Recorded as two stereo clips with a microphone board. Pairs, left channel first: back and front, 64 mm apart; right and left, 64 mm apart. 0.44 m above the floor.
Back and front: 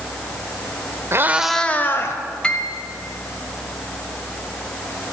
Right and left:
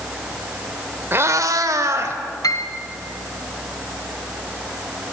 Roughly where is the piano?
Right.